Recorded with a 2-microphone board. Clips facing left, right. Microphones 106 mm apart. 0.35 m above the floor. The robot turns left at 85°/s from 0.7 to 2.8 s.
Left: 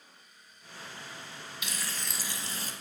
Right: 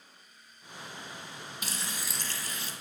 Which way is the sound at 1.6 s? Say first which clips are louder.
Even; 135° right.